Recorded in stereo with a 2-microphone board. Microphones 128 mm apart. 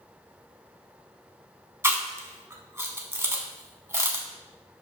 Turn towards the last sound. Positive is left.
turn(degrees=-20)  # may be behind; listen again after turning